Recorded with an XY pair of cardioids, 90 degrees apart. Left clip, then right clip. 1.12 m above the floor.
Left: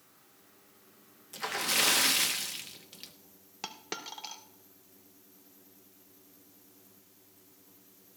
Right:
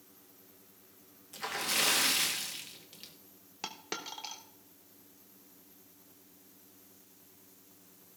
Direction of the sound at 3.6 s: 5° left.